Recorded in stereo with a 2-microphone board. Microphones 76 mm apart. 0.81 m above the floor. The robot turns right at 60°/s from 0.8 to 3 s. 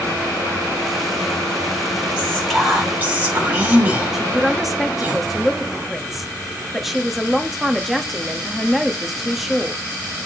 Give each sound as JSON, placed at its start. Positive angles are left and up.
{"t": 2.2, "sound": "whispering", "azimuth_deg": 155, "distance_m": 3.5}
{"t": 4.1, "sound": "a man speaking", "side_deg": -5, "distance_m": 1.0}